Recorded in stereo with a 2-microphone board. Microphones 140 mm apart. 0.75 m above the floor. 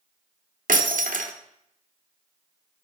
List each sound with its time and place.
0.7 s breaking glass: 70° right (ahead or behind), 0.7 m